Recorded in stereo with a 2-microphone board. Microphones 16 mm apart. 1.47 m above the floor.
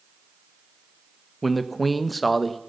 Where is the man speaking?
5° left (ahead or behind), 1.4 m.